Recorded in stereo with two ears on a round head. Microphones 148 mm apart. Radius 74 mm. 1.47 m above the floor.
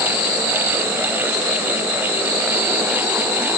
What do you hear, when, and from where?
Only background noise.